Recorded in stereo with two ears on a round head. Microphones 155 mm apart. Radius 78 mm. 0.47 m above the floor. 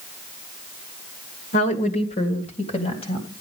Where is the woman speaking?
45° left (ahead or behind), 1.8 m; by 3.3 s 35° left (ahead or behind), 3.5 m.